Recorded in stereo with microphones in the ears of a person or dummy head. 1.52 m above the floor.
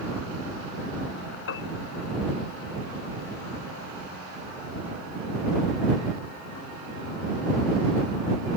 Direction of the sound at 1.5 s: 70° left (ahead or behind).